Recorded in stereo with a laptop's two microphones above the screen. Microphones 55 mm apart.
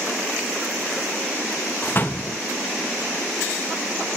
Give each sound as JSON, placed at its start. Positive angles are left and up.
{"t": 1.8, "sound": "a door slam", "side_deg": 40, "distance_m": 0.9}